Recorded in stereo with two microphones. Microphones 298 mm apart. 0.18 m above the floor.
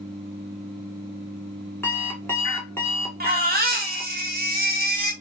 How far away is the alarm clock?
About 0.7 m.